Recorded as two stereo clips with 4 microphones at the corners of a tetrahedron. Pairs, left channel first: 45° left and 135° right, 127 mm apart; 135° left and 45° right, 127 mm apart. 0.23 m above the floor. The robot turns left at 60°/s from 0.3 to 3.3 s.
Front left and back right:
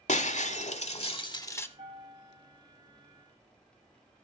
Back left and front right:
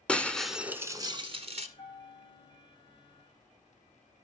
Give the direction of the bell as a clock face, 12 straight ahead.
6 o'clock.